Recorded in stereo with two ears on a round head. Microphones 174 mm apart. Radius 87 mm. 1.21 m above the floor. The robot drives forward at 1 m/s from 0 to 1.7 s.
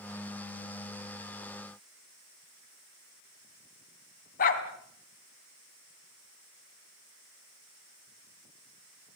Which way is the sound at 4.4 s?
45° left (ahead or behind).